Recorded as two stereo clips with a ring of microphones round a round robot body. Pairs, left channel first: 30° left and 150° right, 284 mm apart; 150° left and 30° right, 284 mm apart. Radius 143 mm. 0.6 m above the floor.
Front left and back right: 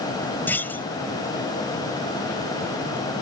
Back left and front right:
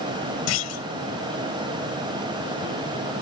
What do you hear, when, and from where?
0.5 s a clunk: 115° left